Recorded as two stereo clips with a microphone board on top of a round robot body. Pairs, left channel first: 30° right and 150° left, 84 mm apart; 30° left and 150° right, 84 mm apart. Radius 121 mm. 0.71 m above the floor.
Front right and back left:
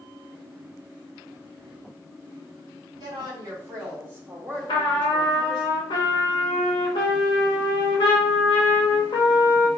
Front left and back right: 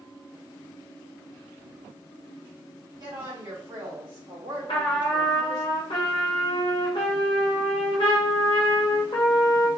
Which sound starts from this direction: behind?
A woman speaking, at 3.0 s.